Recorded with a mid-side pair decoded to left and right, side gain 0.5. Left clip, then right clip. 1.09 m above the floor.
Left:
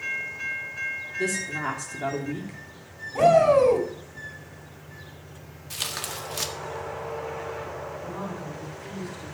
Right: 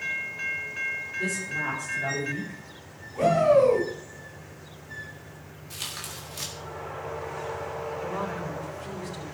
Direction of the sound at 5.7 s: 45° left.